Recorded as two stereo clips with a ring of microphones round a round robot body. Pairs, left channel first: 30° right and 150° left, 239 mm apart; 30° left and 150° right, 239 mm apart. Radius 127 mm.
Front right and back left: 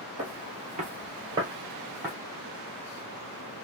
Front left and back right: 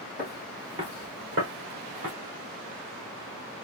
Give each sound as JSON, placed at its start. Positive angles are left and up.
{"t": 0.2, "sound": "footsteps", "azimuth_deg": 115, "distance_m": 1.0}